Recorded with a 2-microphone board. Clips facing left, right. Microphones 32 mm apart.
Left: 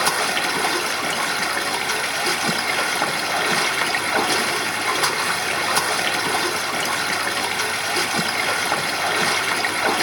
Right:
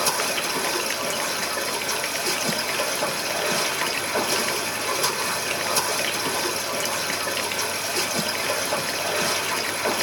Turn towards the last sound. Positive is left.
turn(degrees=40)  # may be behind; listen again after turning